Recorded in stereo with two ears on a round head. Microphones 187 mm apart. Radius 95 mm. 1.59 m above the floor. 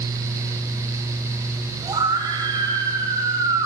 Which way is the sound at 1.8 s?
20° right (ahead or behind).